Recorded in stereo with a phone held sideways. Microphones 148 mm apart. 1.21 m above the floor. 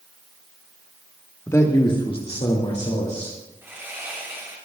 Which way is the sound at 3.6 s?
15° right (ahead or behind).